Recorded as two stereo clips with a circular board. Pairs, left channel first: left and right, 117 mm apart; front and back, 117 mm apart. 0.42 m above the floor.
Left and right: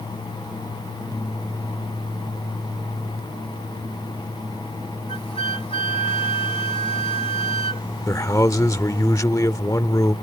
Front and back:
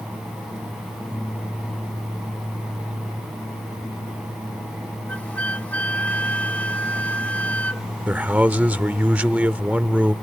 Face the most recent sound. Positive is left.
turn(degrees=115)